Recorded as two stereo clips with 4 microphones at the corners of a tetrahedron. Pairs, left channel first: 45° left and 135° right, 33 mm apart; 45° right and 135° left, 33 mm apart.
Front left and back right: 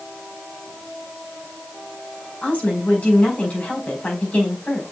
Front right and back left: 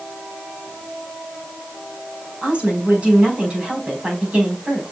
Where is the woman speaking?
85° left, 4.5 m.